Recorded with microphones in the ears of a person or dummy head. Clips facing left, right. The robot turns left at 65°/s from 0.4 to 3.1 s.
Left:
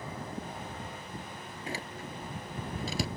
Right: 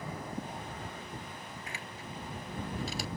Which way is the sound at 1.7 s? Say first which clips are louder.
Left 5 dB; 25° left (ahead or behind).